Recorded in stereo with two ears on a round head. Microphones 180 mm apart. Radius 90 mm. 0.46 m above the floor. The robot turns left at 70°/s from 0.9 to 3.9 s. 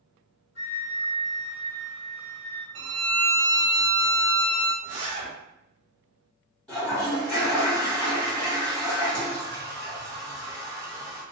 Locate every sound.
0.6 s a flute: 65° left, 1.7 m; by 2.6 s 55° right, 1.7 m
2.8 s a violin: 105° right, 0.5 m; by 4.7 s 175° left, 0.5 m
4.8 s a zipper: 30° right (ahead or behind), 1.6 m
6.7 s a toilet flushing: 5° left (ahead or behind), 1.5 m